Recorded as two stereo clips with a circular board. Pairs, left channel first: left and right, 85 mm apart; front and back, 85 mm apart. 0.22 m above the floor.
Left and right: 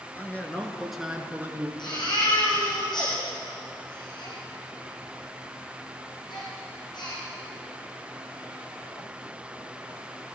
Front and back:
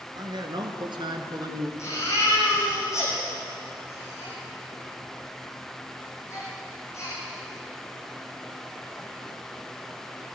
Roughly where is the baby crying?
Ahead left.